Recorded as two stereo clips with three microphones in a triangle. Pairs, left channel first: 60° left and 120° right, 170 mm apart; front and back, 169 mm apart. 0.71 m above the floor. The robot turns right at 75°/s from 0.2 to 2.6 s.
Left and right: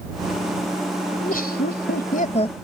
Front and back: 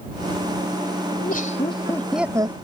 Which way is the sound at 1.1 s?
15° left.